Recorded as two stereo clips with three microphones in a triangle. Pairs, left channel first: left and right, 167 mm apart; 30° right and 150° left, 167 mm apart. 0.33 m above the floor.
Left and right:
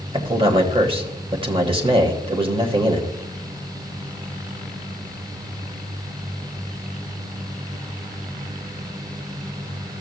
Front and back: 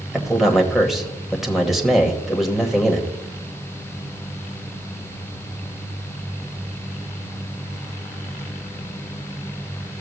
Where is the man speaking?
125° right, 1.2 m.